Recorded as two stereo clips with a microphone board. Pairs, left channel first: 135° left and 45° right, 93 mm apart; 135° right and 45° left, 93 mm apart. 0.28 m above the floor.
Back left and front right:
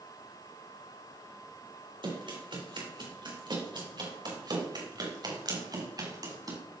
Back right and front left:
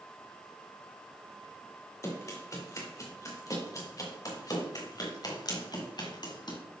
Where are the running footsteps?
75° right, 6 m; by 6.6 s 95° right, 4.5 m.